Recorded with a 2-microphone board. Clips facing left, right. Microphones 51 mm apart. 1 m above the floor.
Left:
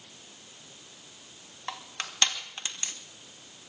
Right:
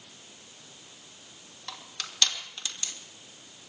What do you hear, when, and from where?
1.7 s crushing: 35° left (ahead or behind), 2.5 m